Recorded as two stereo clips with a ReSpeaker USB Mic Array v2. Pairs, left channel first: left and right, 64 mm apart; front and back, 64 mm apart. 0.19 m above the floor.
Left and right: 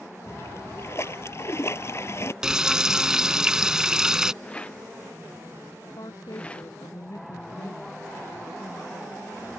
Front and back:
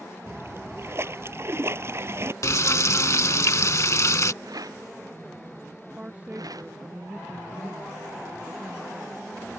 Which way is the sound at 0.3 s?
135° left.